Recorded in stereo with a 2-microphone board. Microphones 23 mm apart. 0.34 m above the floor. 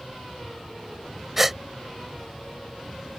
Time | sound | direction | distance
1.4 | a gasp | 15° right (ahead or behind) | ?